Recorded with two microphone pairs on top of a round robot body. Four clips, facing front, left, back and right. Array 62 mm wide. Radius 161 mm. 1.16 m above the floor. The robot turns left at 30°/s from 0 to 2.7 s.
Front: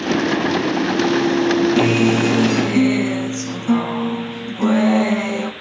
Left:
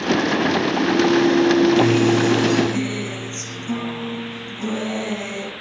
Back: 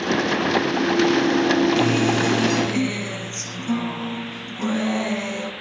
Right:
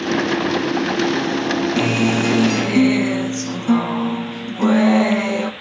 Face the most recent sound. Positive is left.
turn(degrees=-65)